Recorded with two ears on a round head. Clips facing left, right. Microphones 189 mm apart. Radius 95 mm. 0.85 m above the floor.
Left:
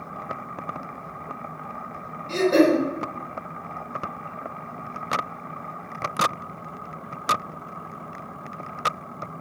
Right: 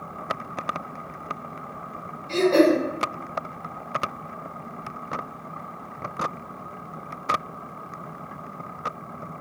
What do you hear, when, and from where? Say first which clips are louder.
2.3 s throat clearing: even; 20° left (ahead or behind), 0.8 m